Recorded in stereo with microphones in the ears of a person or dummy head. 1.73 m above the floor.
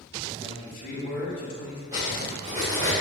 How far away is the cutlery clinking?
About 0.8 m.